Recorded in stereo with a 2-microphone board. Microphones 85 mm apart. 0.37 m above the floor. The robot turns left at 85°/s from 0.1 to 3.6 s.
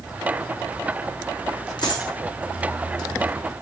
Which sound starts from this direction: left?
A dropped coin, at 1.8 s.